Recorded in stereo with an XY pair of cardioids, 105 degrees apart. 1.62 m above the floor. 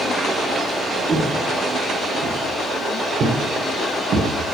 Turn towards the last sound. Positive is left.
turn(degrees=-60)